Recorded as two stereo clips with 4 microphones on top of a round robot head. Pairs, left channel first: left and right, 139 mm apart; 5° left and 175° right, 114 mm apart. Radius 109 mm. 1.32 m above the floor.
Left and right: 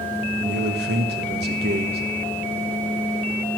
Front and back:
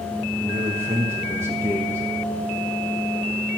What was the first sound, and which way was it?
A man speaking, 95° right.